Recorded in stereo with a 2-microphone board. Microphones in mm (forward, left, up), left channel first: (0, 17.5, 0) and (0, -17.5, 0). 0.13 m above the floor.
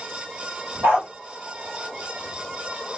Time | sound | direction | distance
0.8 | a dog barking | 75° right (ahead or behind) | 1.5 m